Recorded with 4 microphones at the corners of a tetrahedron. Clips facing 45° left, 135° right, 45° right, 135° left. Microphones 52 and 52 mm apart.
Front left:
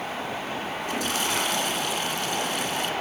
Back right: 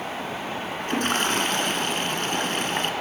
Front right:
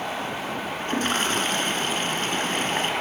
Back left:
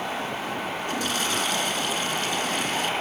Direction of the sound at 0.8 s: 95° right.